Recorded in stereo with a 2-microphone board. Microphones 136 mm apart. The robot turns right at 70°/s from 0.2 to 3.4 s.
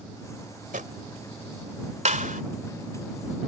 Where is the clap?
60° right (ahead or behind); by 2.4 s 85° right.